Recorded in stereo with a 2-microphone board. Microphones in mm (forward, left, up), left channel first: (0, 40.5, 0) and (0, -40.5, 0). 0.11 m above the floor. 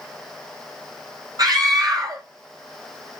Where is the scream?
55° right (ahead or behind), 3.5 m.